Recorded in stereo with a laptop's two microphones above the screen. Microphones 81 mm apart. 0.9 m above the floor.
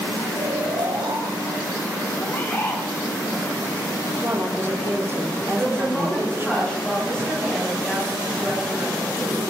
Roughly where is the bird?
Left.